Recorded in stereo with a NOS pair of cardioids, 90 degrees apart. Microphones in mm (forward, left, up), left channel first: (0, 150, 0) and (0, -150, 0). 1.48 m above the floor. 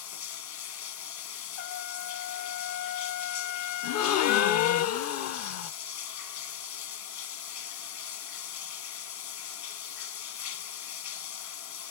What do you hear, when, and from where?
0.0 s running water: 65° left, 1.2 m
1.6 s a trumpet: 60° left, 0.9 m
3.8 s a gasp: 60° left, 0.6 m